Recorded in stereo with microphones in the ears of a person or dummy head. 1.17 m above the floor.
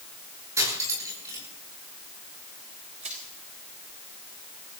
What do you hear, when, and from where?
0.6 s cutlery clinking: 15° right (ahead or behind), 8.5 m
3.0 s crushing: 40° right (ahead or behind), 4.5 m